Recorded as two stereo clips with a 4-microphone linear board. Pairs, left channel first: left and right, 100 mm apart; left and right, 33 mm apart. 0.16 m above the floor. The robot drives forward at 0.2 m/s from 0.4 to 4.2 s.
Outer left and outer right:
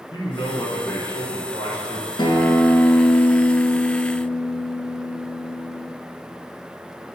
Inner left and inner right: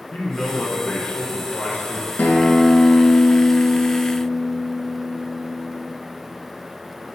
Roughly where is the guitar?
Left.